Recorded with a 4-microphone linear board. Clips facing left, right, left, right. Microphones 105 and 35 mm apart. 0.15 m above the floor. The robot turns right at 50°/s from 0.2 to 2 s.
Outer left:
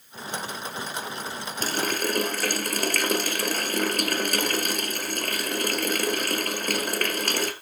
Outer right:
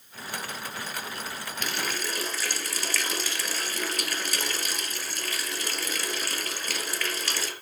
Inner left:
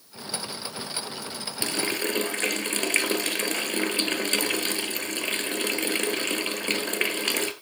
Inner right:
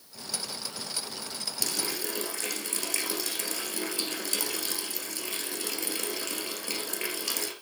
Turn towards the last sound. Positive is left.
turn(degrees=50)  # may be behind; listen again after turning